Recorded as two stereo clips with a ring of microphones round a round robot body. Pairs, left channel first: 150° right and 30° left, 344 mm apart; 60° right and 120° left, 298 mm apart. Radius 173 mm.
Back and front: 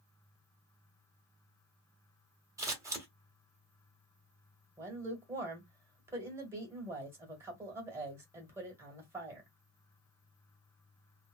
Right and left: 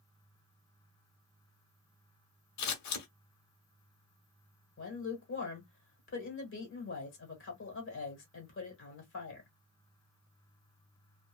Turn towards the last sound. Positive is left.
turn(degrees=-50)